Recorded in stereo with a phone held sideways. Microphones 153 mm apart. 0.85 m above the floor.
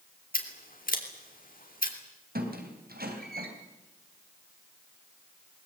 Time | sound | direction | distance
0.3 | scissors | 65° left (ahead or behind) | 3 m
2.4 | a squeak | 85° right | 3.5 m